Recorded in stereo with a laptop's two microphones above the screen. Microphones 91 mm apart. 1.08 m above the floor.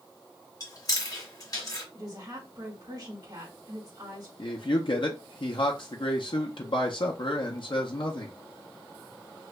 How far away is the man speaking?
About 0.7 m.